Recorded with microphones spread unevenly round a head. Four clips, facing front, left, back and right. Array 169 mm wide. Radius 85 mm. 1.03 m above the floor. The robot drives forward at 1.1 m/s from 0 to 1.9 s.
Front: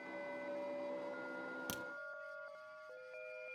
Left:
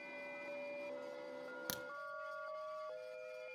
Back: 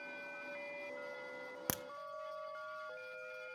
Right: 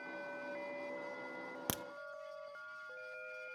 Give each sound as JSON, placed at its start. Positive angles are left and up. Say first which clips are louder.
{"t": 1.7, "sound": "a crack", "louder": "right 7 dB, back 3 dB", "azimuth_deg": -130, "distance_m": 0.5}